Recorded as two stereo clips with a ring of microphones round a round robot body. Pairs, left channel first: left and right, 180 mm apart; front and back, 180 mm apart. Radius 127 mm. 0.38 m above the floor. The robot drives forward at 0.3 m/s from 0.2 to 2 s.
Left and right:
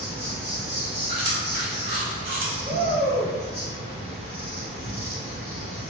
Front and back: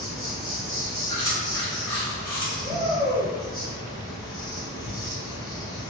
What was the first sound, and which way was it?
An insect, 135° right.